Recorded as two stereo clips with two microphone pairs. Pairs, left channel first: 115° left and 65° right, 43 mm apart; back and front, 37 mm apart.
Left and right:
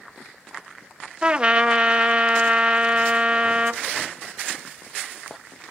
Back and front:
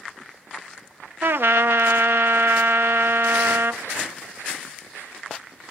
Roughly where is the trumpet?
Ahead.